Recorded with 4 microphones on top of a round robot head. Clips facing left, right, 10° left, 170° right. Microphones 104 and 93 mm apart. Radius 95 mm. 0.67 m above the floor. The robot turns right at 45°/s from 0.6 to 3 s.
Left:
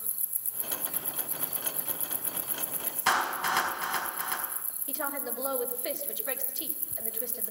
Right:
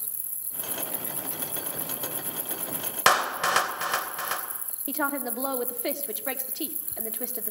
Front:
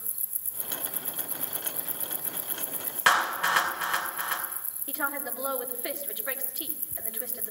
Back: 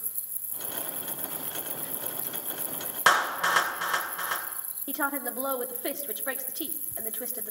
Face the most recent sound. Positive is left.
turn(degrees=-110)